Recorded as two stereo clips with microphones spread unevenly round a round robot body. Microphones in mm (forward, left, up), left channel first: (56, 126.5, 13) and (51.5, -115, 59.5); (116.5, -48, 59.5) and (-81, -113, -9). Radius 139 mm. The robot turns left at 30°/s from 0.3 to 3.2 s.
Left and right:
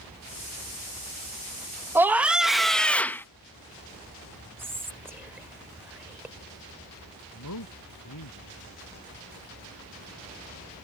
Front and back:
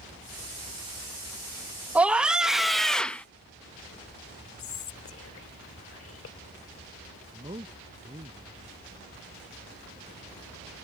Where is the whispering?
5° right.